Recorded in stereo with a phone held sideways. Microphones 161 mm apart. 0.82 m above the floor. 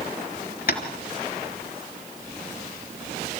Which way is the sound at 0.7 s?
65° left (ahead or behind).